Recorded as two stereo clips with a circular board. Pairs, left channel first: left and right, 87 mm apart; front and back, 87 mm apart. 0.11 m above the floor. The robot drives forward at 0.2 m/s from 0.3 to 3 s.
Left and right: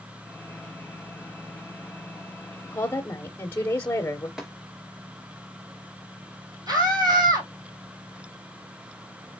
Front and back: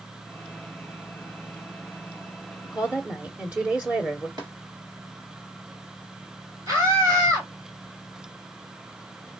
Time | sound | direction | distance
2.6 | a woman speaking | 115° left | 1.2 m
4.4 | tapping | 175° right | 2.5 m
6.7 | a scream | 130° right | 3.5 m